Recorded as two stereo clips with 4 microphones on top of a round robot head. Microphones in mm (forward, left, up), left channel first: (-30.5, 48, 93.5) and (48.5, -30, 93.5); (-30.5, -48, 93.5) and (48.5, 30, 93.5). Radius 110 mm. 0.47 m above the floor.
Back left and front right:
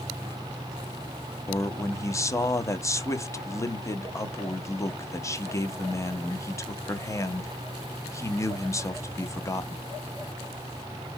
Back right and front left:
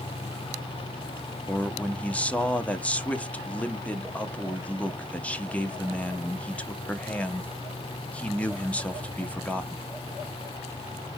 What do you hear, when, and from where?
1.5 s a man speaking: 160° left, 0.8 m